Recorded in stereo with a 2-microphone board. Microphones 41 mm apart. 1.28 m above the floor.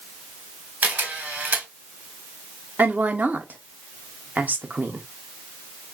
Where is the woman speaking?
40° right (ahead or behind), 0.6 m.